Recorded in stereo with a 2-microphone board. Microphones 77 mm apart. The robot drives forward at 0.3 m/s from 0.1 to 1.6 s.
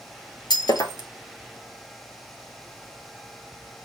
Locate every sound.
0.5 s breaking glass: 70° left (ahead or behind), 0.7 m; by 1.1 s 60° left (ahead or behind), 0.8 m